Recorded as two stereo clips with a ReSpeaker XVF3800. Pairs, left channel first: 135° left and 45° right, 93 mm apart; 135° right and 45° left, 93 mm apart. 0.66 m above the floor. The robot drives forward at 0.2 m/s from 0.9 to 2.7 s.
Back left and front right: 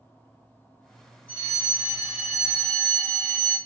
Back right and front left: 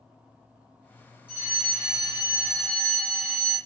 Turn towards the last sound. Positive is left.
turn(degrees=120)